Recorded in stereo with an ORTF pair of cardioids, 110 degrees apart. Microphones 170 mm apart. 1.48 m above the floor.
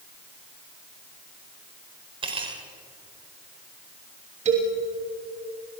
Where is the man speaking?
45° right, 3 m.